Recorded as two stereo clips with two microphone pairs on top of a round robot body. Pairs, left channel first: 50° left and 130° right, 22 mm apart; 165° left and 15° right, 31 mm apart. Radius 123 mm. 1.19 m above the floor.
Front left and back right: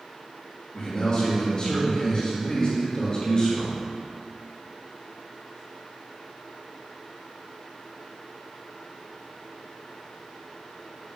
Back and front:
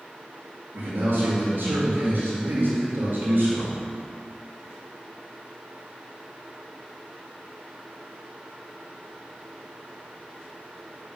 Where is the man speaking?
Straight ahead, 2.5 m.